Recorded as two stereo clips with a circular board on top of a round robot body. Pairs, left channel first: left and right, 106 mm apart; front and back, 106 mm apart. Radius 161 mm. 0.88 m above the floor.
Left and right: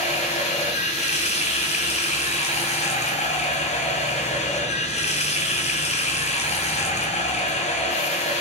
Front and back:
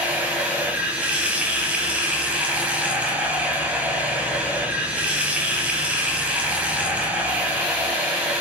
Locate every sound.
0.0 s running water: 100° left, 3 m